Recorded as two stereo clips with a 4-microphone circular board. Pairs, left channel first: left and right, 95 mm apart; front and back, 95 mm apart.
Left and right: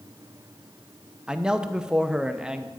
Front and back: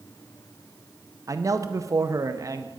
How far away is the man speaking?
About 0.7 m.